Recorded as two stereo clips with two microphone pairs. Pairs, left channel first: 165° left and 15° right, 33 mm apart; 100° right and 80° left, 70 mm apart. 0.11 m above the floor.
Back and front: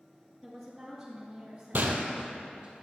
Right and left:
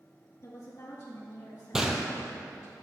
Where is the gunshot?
Straight ahead, 0.8 m.